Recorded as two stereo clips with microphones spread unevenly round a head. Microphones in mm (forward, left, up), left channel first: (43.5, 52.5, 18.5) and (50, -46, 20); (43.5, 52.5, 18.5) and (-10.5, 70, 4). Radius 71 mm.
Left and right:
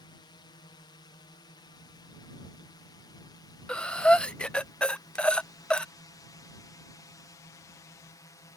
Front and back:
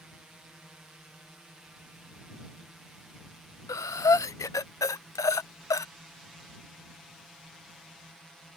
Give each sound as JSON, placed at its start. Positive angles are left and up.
{"t": 0.0, "sound": "a drone", "azimuth_deg": 95}
{"t": 3.7, "sound": "breathing", "azimuth_deg": 10}